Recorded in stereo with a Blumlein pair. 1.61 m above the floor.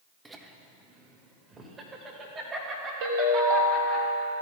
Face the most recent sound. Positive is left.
turn(degrees=-55)